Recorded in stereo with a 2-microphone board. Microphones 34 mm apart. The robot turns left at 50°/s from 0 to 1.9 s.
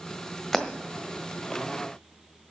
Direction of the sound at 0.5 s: 10° left (ahead or behind).